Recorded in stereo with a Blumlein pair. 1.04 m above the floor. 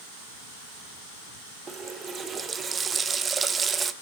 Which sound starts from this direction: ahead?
A running tap, at 1.7 s.